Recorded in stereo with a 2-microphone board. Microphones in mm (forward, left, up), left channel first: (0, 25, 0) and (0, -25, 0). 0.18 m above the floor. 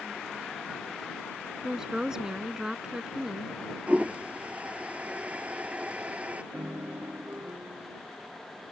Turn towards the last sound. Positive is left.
turn(degrees=-60)  # may be behind; listen again after turning